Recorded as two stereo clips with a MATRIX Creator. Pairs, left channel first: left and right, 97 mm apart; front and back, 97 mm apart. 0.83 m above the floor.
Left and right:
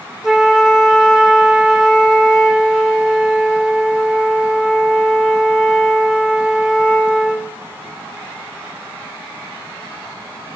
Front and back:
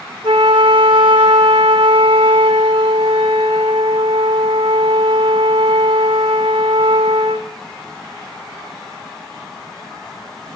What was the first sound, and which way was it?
A flute, 170° right.